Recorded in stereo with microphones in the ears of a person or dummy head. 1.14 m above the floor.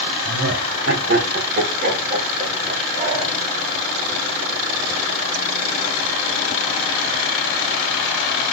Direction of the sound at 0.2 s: 65° right (ahead or behind).